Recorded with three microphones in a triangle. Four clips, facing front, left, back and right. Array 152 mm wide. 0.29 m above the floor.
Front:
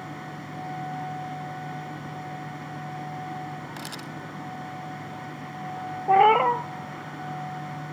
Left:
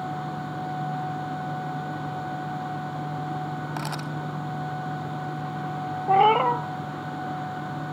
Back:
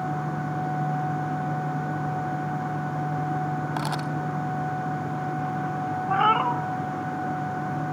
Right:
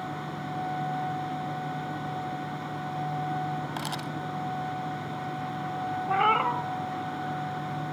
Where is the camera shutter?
175° left, 0.8 m.